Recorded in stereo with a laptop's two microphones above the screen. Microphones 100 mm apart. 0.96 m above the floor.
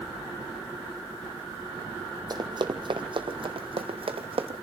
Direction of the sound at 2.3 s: 45° right (ahead or behind).